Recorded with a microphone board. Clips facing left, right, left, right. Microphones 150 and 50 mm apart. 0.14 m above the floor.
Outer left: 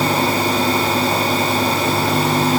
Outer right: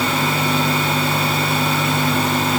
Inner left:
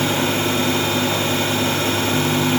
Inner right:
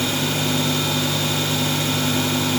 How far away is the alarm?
I don't hear an alarm.